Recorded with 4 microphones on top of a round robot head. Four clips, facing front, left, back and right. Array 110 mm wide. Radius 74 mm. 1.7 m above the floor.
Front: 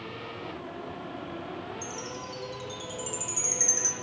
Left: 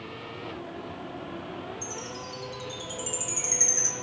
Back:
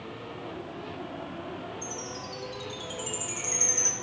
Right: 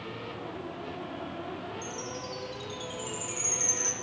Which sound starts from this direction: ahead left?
A chime, at 1.8 s.